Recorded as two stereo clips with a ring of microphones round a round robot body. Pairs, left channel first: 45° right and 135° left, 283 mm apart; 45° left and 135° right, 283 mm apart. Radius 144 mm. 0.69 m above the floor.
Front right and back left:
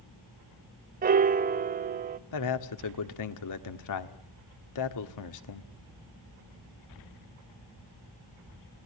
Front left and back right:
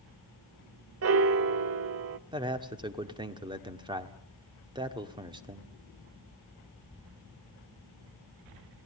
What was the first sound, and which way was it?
A piano, 170° right.